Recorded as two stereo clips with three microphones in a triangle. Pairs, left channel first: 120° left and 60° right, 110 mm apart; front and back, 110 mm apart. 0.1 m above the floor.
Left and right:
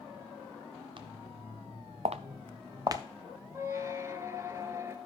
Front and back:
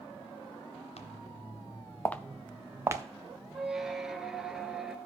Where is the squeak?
95° right, 0.9 m.